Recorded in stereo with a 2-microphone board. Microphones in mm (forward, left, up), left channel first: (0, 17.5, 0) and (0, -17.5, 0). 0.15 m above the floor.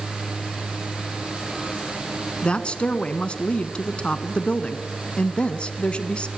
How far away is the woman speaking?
About 1.2 m.